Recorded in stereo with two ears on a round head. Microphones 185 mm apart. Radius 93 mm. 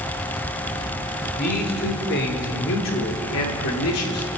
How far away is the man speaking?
About 4.5 m.